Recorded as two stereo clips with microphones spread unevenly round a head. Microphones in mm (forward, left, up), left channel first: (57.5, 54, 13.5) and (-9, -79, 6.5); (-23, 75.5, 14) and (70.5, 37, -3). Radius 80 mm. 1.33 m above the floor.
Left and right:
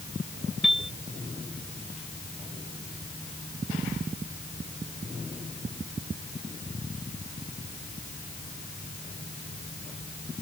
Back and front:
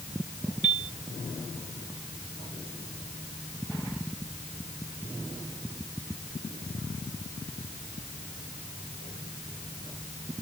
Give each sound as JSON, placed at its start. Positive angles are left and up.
{"t": 0.6, "sound": "a piano", "azimuth_deg": -30}